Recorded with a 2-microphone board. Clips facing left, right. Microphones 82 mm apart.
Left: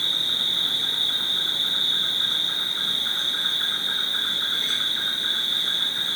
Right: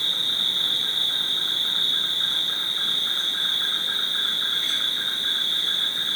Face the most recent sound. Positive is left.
turn(degrees=65)  # may be behind; listen again after turning